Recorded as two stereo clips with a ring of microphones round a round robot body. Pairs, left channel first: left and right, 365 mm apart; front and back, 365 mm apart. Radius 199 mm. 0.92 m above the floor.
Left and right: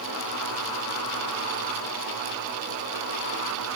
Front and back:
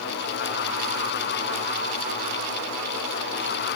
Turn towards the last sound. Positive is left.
No sound to turn to.